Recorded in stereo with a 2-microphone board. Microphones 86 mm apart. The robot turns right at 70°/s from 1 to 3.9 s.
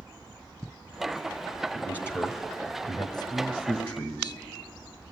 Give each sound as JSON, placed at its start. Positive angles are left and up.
{"t": 1.8, "sound": "a man speaking", "side_deg": 5, "distance_m": 1.7}